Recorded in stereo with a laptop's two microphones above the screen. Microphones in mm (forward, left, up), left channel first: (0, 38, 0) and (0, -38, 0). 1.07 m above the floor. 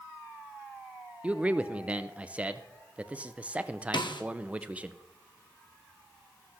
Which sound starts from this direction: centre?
A man speaking, at 1.2 s.